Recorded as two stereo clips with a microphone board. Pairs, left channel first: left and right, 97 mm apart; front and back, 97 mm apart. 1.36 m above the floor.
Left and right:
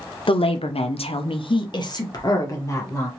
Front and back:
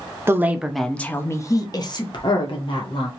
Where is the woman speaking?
115° left, 0.6 m; by 3.1 s 30° left, 1.5 m.